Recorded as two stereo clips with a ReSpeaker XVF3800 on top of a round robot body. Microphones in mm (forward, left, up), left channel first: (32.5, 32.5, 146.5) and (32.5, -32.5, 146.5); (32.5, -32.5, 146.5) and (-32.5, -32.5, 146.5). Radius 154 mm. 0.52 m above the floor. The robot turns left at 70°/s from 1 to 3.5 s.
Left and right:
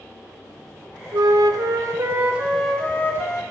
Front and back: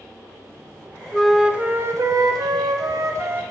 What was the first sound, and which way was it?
A flute, 75° right.